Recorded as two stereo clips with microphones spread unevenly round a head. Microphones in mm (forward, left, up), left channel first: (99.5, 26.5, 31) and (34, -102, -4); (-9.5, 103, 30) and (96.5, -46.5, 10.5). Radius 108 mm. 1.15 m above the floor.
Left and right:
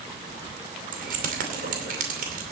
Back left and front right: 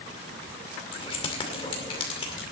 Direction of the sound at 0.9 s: 165° right.